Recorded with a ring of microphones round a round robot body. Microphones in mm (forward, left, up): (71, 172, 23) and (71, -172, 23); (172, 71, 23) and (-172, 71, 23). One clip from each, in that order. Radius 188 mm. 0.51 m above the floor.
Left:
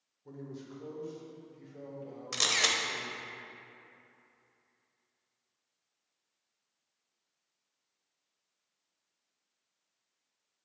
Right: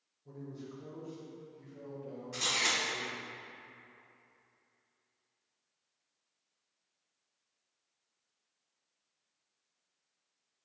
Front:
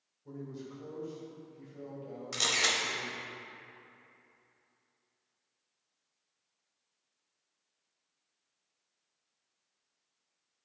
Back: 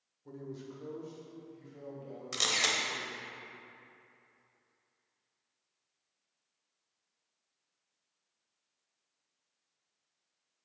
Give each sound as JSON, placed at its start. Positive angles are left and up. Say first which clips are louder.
{"t": 0.2, "sound": "a man speaking", "louder": "left 1 dB, even", "azimuth_deg": 115, "distance_m": 1.4}
{"t": 2.3, "sound": "a camera shutter", "louder": "left 3 dB, front 1 dB", "azimuth_deg": 100, "distance_m": 0.8}